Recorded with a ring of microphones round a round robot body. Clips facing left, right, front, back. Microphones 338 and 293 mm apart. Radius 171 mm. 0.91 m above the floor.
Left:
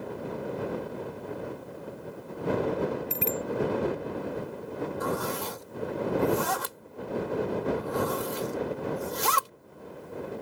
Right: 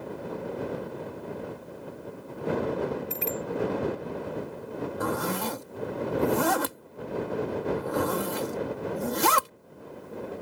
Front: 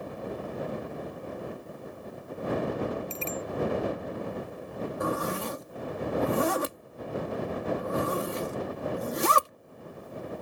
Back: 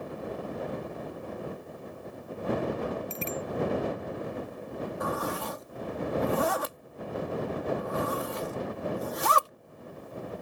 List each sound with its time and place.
3.1 s a bicycle bell: 110° left
5.0 s a zipper: 65° right